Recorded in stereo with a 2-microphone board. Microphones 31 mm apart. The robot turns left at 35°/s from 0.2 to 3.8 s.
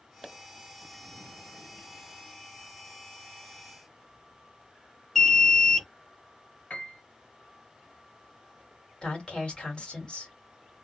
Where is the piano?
50° left (ahead or behind), 1.3 m.